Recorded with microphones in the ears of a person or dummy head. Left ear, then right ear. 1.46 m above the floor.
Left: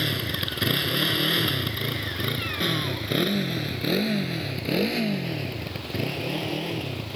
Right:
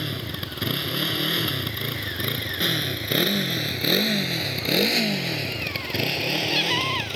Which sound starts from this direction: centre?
A motorcycle, at 0.0 s.